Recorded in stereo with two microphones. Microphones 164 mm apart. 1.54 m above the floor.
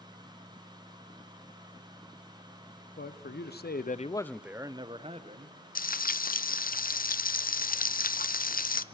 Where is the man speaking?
80° left, 1.4 m; by 5.6 s 45° right (ahead or behind), 1.7 m.